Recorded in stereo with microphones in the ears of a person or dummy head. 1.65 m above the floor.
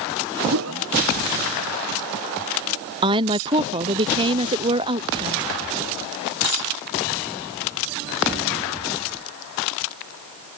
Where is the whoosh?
70° right (ahead or behind).